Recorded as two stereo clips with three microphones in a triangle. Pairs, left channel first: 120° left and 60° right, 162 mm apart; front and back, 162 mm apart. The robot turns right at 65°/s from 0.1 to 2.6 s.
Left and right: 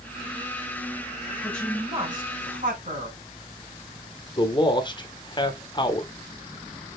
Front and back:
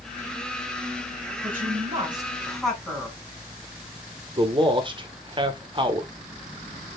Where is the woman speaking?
165° right, 4 m; by 3.2 s 85° right, 4 m.